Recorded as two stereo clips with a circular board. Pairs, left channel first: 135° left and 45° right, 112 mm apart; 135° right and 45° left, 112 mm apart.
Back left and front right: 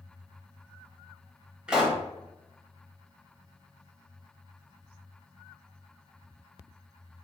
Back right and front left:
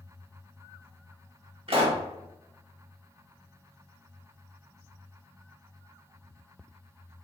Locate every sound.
1.7 s a pop: 35° left, 0.8 m